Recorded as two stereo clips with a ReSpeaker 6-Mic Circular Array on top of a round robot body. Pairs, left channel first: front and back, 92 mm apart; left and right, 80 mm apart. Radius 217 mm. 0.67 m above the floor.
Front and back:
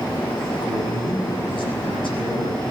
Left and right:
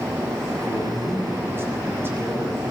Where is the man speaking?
35° right, 9 m; by 2.7 s 25° right, 11 m.